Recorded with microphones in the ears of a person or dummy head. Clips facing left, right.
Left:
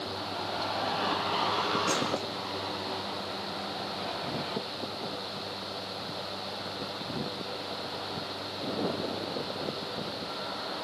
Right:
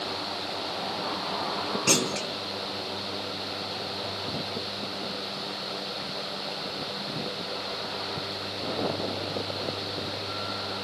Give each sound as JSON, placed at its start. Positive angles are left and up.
{"t": 1.9, "sound": "a clunk", "side_deg": -85, "distance_m": 0.7}